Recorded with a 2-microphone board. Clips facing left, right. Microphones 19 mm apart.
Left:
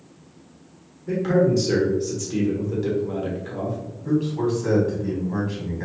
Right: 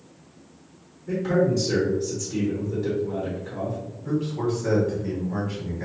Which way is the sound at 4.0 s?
25° left (ahead or behind).